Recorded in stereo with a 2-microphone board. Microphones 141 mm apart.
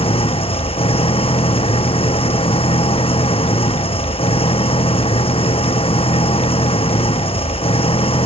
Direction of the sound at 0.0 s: 40° left (ahead or behind).